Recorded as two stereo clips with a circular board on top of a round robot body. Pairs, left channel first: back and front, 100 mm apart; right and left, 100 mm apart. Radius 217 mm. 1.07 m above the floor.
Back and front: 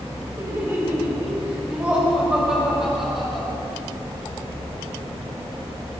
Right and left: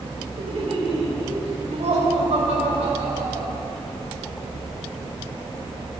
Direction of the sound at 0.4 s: 65° left.